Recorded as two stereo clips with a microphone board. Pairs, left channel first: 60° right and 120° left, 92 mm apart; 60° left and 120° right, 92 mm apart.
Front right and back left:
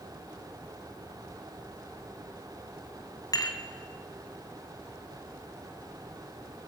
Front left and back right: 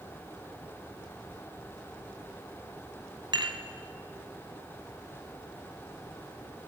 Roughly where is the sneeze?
No sneeze in this recording.